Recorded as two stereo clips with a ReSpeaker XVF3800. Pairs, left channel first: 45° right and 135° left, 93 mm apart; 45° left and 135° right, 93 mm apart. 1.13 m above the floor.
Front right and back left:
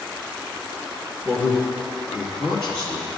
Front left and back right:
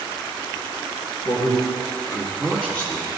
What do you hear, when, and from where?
1.2 s a man speaking: 15° left, 1.4 m; by 3.1 s 35° right, 3 m